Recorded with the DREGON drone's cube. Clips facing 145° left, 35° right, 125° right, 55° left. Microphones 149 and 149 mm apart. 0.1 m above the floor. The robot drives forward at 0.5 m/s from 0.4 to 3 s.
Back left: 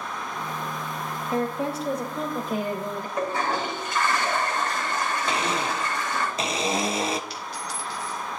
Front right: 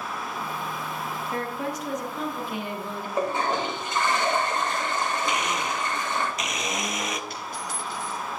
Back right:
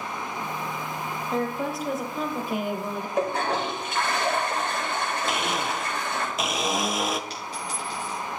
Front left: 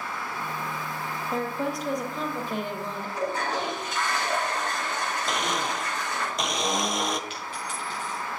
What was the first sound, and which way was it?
A woman speaking, 140° left.